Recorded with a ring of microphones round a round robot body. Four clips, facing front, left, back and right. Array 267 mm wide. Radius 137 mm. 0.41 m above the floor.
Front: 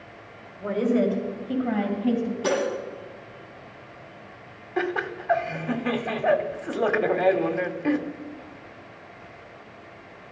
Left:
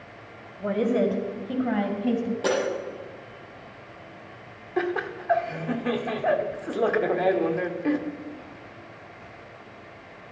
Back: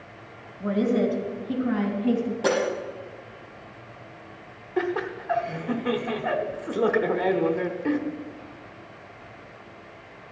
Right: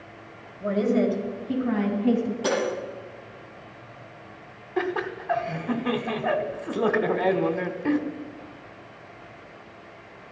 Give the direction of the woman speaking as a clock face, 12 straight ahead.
9 o'clock.